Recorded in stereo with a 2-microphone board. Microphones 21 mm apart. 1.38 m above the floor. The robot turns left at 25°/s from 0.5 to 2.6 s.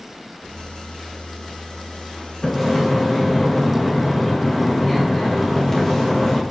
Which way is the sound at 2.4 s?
15° left (ahead or behind).